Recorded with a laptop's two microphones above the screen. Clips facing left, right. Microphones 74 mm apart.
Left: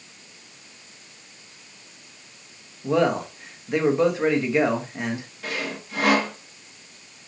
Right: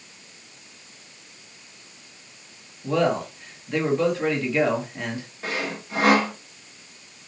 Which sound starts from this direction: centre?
A man speaking, at 2.8 s.